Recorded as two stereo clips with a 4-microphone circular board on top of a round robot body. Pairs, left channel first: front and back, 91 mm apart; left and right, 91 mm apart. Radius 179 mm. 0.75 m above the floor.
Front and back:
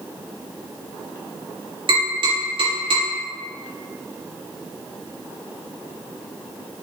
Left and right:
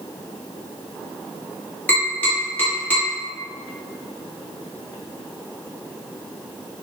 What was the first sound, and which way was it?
Tapping, 165° left.